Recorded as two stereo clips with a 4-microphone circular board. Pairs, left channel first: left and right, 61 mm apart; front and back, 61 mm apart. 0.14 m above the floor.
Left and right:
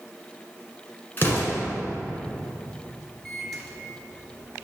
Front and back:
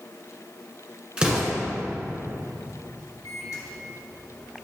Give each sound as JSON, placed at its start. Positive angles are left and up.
{"t": 1.2, "sound": "an explosion", "azimuth_deg": 115, "distance_m": 1.8}
{"t": 3.2, "sound": "a microwave", "azimuth_deg": 0, "distance_m": 1.6}